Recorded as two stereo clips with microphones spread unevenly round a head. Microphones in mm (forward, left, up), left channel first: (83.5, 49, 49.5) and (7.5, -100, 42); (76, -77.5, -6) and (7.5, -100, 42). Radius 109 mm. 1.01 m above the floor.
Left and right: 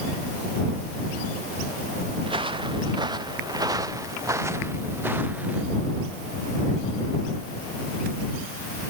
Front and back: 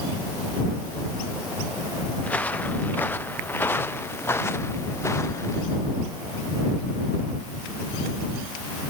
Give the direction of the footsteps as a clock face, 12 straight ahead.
2 o'clock.